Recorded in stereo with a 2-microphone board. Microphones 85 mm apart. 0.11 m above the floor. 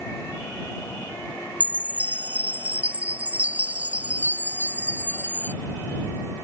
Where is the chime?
15° right (ahead or behind).